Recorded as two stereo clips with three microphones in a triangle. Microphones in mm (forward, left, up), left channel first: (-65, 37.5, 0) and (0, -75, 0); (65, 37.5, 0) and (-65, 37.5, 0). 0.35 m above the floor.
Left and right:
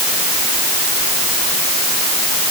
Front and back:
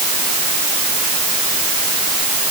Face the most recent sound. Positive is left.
No sound to turn to.